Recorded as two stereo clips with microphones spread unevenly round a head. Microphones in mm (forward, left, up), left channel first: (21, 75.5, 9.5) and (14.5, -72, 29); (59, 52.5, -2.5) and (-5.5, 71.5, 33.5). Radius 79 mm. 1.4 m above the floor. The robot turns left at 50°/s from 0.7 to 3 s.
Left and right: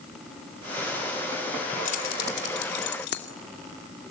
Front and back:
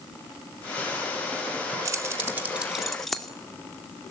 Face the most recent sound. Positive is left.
turn(degrees=75)